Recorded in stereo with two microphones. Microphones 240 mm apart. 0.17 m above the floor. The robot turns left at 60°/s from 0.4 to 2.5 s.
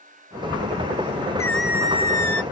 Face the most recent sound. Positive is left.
turn(degrees=-55)